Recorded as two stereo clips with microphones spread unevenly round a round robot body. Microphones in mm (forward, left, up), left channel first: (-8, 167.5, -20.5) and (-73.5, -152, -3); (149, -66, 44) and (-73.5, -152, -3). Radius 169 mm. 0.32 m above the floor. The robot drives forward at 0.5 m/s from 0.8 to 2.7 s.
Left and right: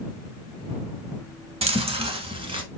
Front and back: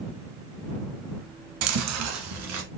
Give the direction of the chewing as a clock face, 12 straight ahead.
6 o'clock.